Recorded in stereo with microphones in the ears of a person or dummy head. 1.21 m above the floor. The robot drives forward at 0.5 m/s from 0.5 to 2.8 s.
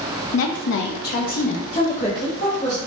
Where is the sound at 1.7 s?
30° left (ahead or behind), 0.7 m; by 2.8 s 20° left (ahead or behind), 1.1 m.